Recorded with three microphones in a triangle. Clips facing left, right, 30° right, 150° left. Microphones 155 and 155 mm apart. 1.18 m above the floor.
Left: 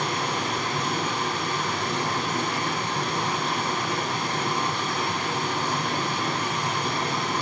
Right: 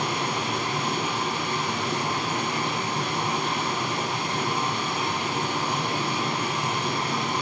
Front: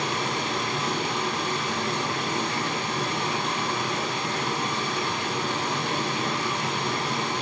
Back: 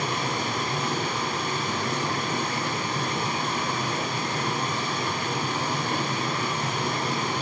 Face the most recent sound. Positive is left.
turn(degrees=-155)